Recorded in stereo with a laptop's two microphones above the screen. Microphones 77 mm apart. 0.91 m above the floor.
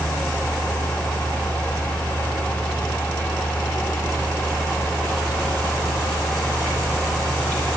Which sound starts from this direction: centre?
A fan, at 0.0 s.